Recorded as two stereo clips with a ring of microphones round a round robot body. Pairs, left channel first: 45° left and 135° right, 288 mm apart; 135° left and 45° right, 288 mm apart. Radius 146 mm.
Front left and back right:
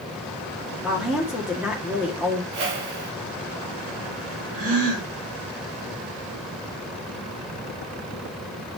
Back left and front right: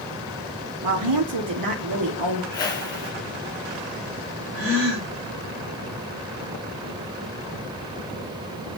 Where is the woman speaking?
50° right, 2 m.